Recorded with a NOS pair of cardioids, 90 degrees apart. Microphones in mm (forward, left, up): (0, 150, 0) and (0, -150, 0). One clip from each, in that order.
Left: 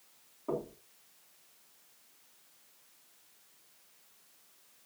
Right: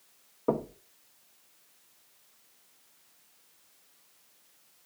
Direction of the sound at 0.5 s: 65° right.